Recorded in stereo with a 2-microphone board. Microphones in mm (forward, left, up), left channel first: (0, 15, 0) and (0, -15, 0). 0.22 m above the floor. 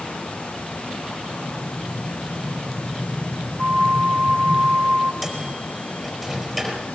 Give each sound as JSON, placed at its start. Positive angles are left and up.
{"t": 1.3, "sound": "an explosion", "side_deg": 75, "distance_m": 7.0}
{"t": 3.6, "sound": "a flute", "side_deg": -35, "distance_m": 1.9}
{"t": 5.2, "sound": "a microwave", "side_deg": 0, "distance_m": 4.5}